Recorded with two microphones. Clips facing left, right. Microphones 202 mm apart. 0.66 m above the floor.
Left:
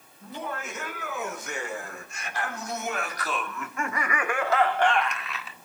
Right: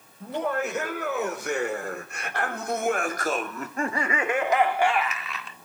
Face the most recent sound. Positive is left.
turn(degrees=5)  # may be behind; listen again after turning